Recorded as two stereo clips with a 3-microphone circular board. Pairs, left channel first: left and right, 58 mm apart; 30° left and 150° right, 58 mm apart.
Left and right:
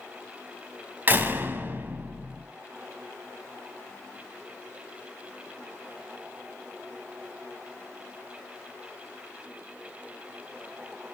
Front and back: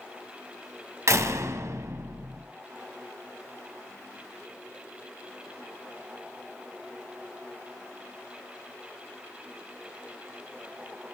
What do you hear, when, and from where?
1.1 s a door slam: 140° right, 1.3 m